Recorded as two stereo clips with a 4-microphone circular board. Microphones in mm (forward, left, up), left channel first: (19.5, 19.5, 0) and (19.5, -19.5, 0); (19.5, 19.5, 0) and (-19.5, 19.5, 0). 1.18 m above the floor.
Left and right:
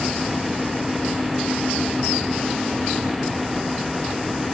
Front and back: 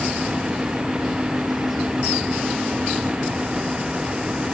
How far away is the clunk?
I don't hear a clunk.